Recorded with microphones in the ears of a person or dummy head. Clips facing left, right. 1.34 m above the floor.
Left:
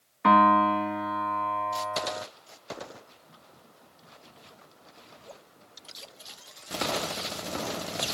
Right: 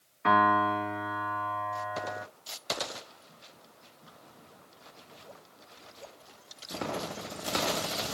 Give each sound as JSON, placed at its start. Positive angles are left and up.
{"t": 0.2, "sound": "a piano", "side_deg": 45, "distance_m": 1.6}